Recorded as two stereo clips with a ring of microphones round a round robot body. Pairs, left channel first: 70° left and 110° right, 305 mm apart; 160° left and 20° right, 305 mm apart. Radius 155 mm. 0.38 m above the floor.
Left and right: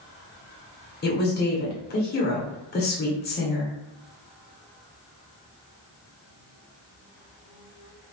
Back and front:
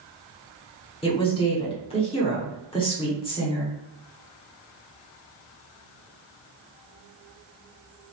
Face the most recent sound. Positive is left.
turn(degrees=95)